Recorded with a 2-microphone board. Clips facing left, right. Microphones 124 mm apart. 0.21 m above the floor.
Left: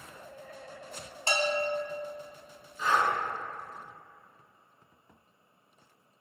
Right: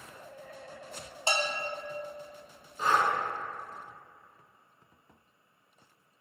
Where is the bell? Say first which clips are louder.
Left 4 dB; 20° right (ahead or behind), 0.8 m.